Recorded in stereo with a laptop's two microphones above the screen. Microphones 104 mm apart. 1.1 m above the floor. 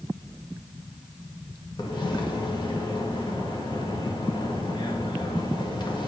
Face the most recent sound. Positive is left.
turn(degrees=50)  # may be behind; listen again after turning